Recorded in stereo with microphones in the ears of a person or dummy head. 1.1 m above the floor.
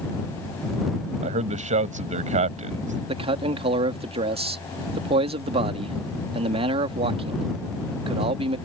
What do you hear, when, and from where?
1.2 s a man speaking: 40° right (ahead or behind)
3.1 s a man speaking: 30° right (ahead or behind)